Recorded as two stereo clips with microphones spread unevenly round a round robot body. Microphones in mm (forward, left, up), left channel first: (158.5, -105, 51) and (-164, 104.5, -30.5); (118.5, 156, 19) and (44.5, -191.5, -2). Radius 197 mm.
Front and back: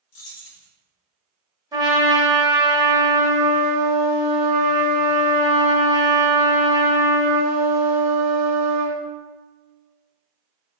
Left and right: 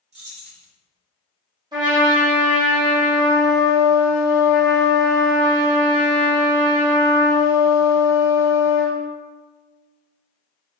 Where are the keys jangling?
65° right, 0.7 m.